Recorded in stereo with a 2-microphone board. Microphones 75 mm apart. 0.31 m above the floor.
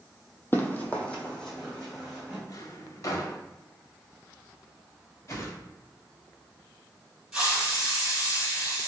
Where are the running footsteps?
30° left (ahead or behind), 0.6 m; by 2.4 s 5° left (ahead or behind), 1.6 m.